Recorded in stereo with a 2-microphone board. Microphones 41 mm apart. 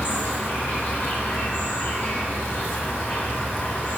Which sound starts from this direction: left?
An insect, at 0.0 s.